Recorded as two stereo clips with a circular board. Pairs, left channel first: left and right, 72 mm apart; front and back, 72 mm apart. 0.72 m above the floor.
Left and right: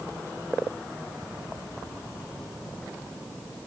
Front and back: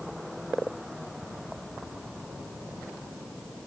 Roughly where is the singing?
No singing in this recording.